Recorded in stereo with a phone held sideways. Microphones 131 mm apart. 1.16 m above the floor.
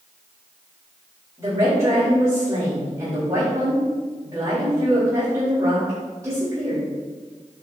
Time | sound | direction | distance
1.4 | a woman speaking | 25° right (ahead or behind) | 5 m